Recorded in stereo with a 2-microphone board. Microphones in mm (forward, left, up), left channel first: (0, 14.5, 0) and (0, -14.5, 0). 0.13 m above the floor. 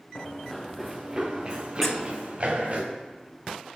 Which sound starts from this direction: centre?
A squeak, at 1.8 s.